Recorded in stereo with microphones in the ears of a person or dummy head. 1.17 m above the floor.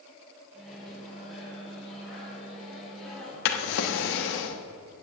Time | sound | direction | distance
0.5 | a microwave | centre (ahead or behind) | 4 m
3.5 | a drawer | 65° left (ahead or behind) | 0.9 m